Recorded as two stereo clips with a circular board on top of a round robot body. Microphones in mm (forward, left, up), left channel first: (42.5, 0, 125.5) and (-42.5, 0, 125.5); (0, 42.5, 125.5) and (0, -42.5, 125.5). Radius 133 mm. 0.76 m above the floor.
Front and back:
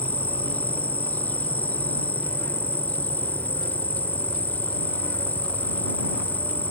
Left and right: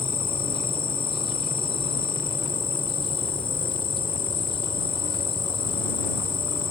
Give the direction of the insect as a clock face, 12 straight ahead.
10 o'clock.